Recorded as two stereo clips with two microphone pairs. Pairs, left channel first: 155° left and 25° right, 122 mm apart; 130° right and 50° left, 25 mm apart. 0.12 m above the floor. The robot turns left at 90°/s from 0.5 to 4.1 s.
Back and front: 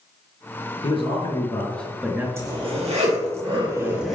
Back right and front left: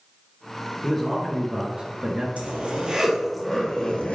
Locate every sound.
0.8 s a man speaking: 165° left, 1.9 m; by 2.3 s 40° left, 1.9 m
2.4 s a zipper: 40° left, 2.5 m; by 4.2 s 115° right, 2.5 m